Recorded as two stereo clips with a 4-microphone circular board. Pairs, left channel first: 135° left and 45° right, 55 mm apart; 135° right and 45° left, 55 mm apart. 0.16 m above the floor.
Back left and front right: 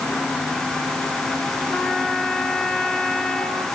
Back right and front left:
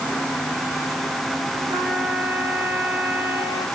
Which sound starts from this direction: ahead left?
A trumpet, at 1.7 s.